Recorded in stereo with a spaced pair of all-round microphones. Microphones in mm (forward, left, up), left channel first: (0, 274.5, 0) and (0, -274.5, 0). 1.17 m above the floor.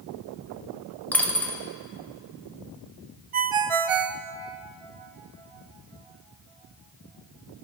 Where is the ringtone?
70° right (ahead or behind), 0.5 m.